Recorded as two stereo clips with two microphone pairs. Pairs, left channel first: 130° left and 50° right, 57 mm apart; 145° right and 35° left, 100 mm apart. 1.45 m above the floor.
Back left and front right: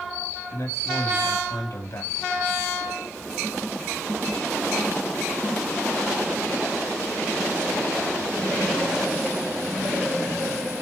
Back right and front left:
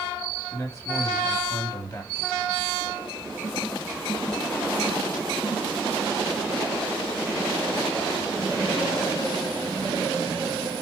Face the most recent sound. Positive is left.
turn(degrees=145)